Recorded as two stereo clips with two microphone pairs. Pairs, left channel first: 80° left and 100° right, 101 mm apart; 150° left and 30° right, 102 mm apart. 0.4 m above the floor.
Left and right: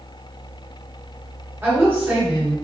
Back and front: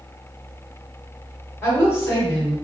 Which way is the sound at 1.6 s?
155° right.